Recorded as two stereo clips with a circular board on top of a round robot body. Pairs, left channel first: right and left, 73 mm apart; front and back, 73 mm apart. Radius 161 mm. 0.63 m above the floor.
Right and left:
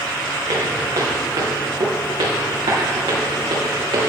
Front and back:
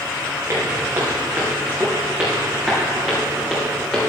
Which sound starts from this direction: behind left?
Footsteps, at 0.5 s.